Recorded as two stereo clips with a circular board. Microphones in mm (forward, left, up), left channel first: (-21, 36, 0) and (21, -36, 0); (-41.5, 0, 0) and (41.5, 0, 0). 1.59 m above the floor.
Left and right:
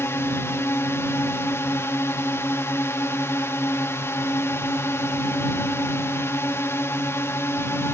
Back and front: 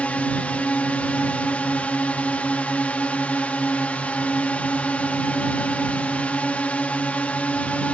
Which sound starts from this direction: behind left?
A drone, at 0.0 s.